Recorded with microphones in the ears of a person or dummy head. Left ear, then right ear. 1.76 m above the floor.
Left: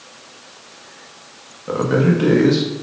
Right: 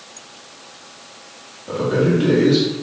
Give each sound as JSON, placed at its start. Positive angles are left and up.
{"t": 1.7, "sound": "a man speaking", "side_deg": 50, "distance_m": 0.7}